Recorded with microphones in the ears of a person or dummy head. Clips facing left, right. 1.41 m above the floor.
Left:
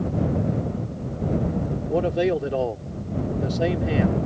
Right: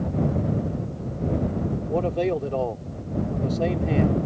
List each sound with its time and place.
1.9 s a man speaking: 10° left (ahead or behind)